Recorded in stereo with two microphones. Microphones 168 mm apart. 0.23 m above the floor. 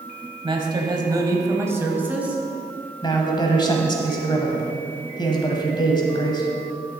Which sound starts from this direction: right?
A man speaking, at 0.4 s.